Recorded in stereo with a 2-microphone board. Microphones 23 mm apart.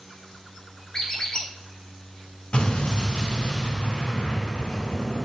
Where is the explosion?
45° left (ahead or behind), 1.9 m.